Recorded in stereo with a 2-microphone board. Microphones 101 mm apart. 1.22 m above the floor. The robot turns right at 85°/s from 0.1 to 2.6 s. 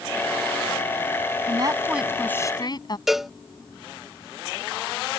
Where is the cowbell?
Centre (ahead or behind).